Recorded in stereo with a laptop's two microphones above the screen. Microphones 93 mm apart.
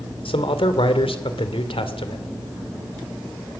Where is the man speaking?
85° left, 2.5 m.